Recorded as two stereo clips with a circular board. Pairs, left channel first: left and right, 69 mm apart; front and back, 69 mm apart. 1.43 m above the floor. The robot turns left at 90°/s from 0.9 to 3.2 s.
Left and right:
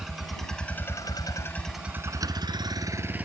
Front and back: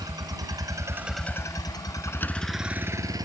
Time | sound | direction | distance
0.0 | a vehicle | 175° right | ?